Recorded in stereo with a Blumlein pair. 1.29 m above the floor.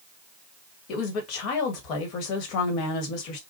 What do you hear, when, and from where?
0.9 s a woman speaking: 40° left, 1.7 m